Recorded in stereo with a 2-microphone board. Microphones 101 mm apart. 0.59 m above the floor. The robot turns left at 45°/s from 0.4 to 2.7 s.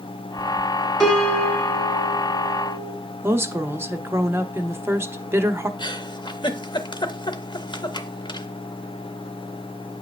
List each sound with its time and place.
1.0 s a piano: 170° left, 1.9 m; by 3.0 s 95° left, 1.9 m
3.2 s a woman speaking: 25° right (ahead or behind), 0.8 m
5.8 s a giggle: 50° left (ahead or behind), 0.8 m